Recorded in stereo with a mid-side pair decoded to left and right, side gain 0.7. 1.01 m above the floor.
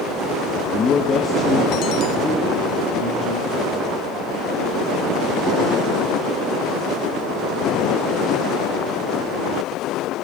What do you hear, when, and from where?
0.7 s a man speaking: 30° left, 0.7 m; by 4.0 s 10° left, 4 m